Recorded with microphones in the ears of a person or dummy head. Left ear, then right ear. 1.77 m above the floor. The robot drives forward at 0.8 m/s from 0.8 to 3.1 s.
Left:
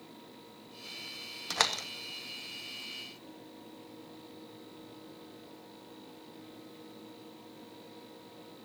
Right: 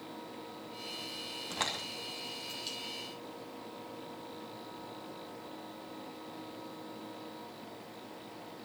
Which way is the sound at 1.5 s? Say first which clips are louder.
Left 6 dB; 60° left (ahead or behind).